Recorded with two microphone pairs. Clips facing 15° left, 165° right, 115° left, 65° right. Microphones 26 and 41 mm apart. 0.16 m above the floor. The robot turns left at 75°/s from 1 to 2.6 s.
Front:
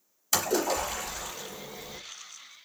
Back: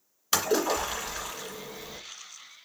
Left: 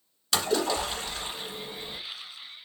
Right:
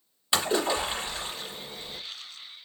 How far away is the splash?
About 2.5 m.